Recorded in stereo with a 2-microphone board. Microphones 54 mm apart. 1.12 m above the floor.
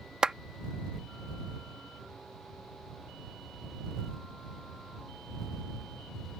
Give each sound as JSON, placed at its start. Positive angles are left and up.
{"t": 0.2, "sound": "a clap", "side_deg": -20}